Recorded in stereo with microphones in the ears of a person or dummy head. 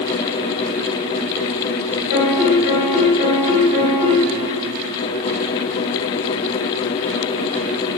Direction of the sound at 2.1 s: 50° left (ahead or behind).